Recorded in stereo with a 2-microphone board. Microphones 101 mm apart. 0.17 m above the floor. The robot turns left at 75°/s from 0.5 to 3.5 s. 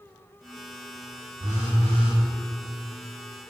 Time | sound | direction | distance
1.4 | a phone buzzing | 50° right | 0.7 m